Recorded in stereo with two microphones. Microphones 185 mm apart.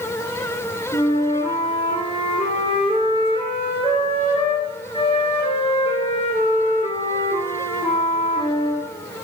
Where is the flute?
35° left (ahead or behind), 3 m.